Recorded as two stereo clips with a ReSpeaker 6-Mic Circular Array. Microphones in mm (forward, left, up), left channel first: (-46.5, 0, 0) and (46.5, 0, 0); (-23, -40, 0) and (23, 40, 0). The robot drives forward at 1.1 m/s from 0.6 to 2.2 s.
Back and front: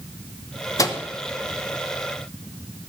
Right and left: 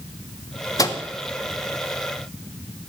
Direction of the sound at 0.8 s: 145° right.